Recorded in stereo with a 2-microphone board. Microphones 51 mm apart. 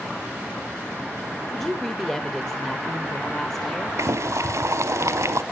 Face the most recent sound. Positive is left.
turn(degrees=-65)  # may be behind; listen again after turning